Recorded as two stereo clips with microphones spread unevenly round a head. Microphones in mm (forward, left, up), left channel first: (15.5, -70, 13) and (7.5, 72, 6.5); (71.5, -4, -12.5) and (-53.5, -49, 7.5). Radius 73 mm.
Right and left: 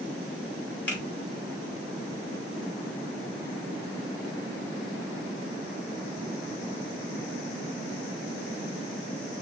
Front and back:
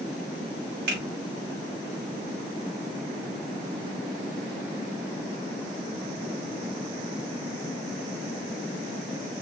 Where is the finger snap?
165° right, 2.5 m.